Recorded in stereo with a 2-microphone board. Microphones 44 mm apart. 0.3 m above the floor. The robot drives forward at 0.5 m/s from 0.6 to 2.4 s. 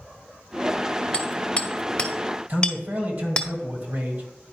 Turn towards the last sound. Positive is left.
turn(degrees=-50)  # may be behind; listen again after turning